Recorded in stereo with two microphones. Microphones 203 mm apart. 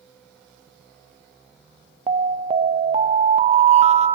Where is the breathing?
No breathing in this recording.